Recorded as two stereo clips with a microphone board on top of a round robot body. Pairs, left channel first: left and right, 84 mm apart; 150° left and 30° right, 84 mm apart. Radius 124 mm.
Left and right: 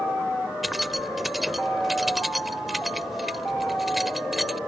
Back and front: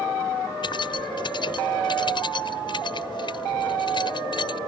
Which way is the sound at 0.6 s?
Straight behind.